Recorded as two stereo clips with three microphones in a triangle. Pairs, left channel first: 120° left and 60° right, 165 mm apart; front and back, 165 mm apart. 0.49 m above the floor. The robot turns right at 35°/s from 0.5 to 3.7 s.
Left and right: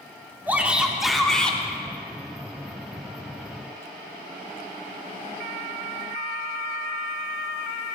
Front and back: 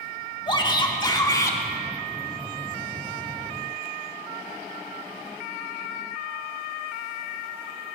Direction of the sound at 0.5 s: 5° left.